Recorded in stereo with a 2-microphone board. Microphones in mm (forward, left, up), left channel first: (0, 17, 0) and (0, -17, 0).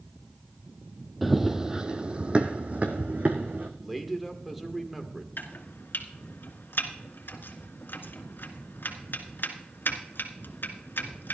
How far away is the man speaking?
About 1.6 m.